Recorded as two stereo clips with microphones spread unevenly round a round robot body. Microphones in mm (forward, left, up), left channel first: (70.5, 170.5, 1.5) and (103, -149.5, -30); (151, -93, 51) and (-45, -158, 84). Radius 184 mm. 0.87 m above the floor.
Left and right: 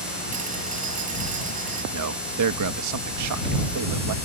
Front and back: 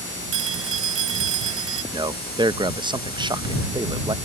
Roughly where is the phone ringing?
Behind right.